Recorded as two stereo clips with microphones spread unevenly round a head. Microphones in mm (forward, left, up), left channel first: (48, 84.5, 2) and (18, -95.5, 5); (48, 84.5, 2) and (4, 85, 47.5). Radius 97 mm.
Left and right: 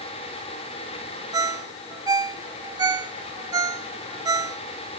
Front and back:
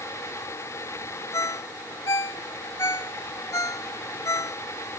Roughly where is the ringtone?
Ahead right.